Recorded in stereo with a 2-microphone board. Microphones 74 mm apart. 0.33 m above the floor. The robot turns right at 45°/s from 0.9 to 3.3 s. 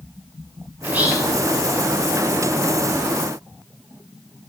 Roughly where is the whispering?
Centre.